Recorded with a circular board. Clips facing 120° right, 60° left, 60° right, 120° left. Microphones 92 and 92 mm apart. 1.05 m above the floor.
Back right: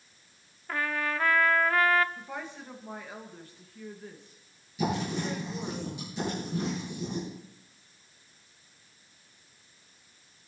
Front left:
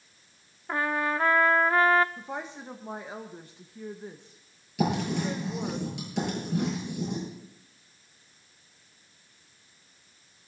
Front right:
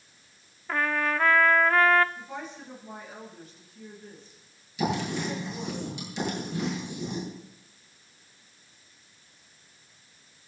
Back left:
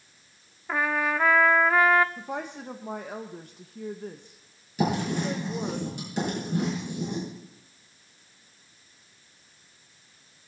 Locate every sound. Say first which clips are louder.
0.7 s a trumpet: front left 3 dB, back left 1 dB; 50° left, 0.6 m
2.2 s a woman speaking: front left 3 dB, back left 5 dB; 125° left, 1.2 m
4.8 s writing: front left 3 dB, back left 2 dB; 80° left, 9.5 m